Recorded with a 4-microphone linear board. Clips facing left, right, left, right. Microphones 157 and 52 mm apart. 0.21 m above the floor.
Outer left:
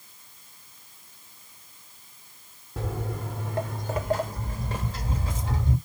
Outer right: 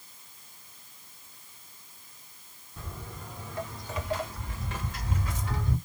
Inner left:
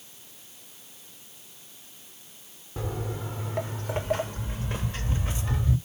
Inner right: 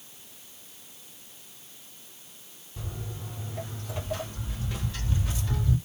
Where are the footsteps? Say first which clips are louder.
Outer left 11 dB, inner left 7 dB; 75° left (ahead or behind), 1.1 m; by 5.8 s 25° left (ahead or behind), 2 m.